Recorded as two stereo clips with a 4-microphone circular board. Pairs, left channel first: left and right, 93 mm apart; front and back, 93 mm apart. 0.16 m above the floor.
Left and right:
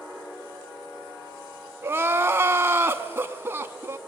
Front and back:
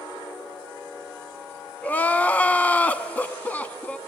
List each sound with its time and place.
1.8 s crying: 60° right, 0.8 m